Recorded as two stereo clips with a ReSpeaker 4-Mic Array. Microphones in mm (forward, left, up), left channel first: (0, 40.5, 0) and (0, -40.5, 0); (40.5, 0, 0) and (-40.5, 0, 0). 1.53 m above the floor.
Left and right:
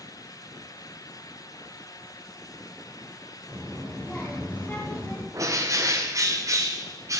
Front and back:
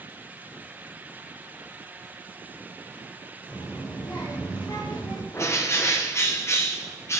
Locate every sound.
3.5 s a child speaking: 20° left, 2.5 m; by 5.2 s 25° left, 1.5 m
5.3 s a bird: 50° right, 0.7 m